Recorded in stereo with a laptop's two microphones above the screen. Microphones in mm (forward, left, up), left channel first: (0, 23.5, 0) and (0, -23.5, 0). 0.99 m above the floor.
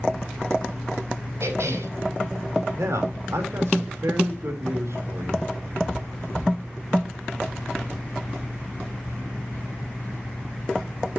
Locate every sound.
1.4 s a cough: 70° right (ahead or behind), 5.5 m
2.7 s a man speaking: 75° right (ahead or behind), 4 m